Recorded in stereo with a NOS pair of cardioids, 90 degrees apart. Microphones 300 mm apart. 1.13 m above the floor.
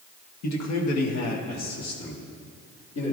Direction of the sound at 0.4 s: 65° left.